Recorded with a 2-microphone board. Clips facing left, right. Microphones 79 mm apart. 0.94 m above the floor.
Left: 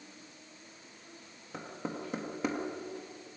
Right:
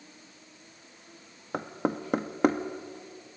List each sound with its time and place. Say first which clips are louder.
1.5 s knocking: right 9 dB; 60° right (ahead or behind), 1.1 m